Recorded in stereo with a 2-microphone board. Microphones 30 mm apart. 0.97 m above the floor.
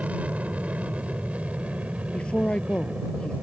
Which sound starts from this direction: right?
An aircraft, at 0.0 s.